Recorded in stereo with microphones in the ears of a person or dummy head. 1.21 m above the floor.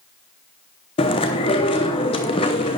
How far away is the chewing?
About 0.9 m.